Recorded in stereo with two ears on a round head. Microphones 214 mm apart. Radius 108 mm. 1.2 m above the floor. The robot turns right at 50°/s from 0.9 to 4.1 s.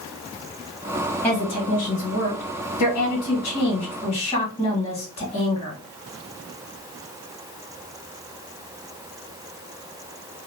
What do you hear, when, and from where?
1.2 s a woman speaking: 10° left, 1.7 m; by 5.8 s 150° left, 1.7 m